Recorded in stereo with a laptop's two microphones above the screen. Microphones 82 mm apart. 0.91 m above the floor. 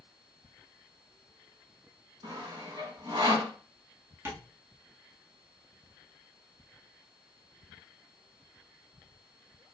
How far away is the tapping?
About 1.6 m.